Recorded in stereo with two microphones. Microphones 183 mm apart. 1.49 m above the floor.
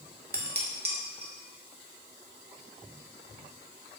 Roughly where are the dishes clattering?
Right.